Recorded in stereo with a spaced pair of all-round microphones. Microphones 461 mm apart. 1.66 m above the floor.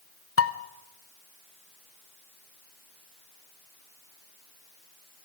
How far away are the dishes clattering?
About 0.7 m.